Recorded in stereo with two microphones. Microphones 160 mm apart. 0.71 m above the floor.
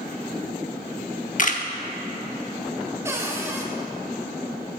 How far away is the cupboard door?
About 1.3 m.